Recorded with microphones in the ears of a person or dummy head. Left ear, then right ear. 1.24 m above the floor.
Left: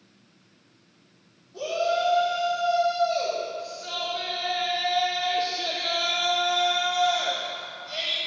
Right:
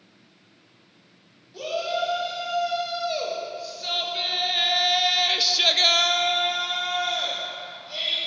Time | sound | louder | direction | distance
1.5 | a shout | left 2 dB | 25° right (ahead or behind) | 3.5 m